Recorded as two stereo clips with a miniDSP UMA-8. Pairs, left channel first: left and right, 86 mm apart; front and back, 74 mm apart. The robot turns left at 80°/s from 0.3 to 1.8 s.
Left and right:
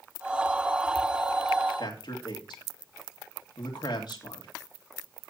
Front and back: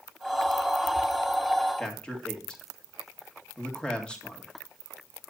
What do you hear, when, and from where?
1.8 s a man speaking: 80° left, 2.5 m; by 4.5 s 75° left, 2.5 m